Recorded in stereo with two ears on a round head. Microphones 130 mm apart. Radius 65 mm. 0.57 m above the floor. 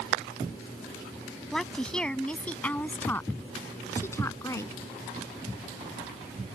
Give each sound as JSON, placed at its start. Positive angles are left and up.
{"t": 1.5, "sound": "a woman speaking", "side_deg": 5}